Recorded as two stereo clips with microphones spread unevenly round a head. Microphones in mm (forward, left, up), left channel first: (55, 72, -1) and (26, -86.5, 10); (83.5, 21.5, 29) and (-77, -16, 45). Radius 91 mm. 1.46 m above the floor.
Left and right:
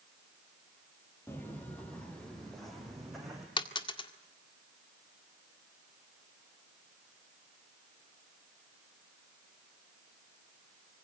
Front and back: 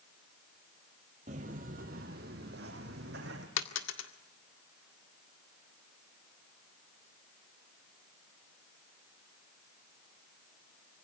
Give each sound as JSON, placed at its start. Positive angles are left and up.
{"t": 1.3, "sound": "footsteps", "azimuth_deg": 160, "distance_m": 2.5}
{"t": 3.6, "sound": "a dropped coin", "azimuth_deg": 20, "distance_m": 1.8}